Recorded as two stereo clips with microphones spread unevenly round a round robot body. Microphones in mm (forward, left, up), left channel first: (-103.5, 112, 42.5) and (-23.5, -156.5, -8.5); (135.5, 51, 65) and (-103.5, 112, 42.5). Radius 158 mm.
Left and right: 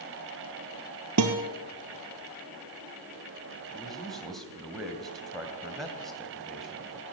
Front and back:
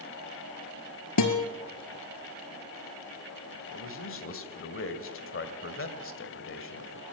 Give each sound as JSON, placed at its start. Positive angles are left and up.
{"t": 1.2, "sound": "a guitar", "azimuth_deg": -30, "distance_m": 1.9}
{"t": 3.7, "sound": "a man speaking", "azimuth_deg": 10, "distance_m": 2.5}